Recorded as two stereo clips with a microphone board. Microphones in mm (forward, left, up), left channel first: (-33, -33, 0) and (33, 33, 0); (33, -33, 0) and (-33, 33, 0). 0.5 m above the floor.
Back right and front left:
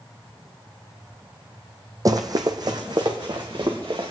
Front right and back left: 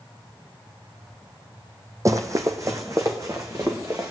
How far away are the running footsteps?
About 1.0 m.